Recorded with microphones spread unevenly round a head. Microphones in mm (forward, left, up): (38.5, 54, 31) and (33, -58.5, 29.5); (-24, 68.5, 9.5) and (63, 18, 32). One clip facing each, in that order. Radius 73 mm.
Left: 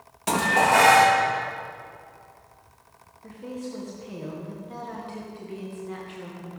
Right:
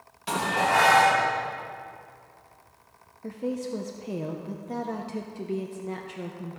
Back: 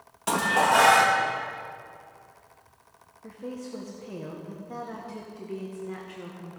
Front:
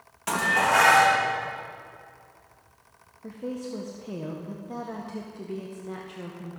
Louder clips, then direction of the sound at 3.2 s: Right 5 dB, front 4 dB; 80° right.